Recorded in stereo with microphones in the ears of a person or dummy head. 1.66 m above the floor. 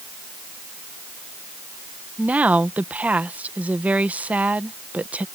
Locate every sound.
2.2 s a woman speaking: 5° right (ahead or behind)